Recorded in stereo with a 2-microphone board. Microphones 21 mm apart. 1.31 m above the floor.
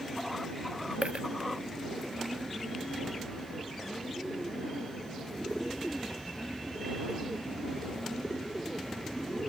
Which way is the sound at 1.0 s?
80° right.